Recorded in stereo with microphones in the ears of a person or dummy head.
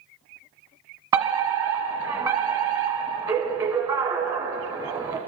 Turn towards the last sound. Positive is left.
turn(degrees=-25)  # may be behind; listen again after turning